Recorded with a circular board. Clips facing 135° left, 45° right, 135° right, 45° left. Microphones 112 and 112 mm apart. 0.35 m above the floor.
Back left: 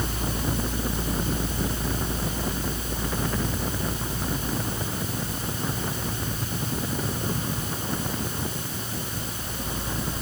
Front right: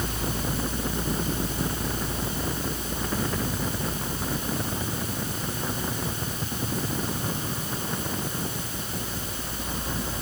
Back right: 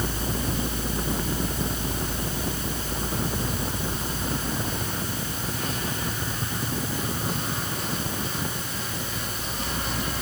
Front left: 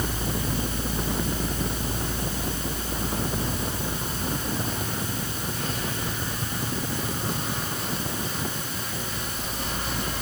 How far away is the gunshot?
No gunshot in this recording.